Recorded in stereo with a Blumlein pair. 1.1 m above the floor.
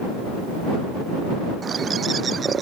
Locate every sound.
1.6 s a bird: 20° right